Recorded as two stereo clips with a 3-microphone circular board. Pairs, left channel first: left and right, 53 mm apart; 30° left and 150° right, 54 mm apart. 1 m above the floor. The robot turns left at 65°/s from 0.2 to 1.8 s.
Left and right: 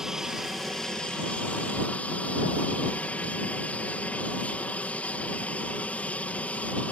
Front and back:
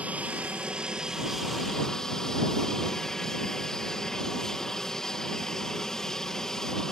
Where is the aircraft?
160° right; by 6.9 s 95° left.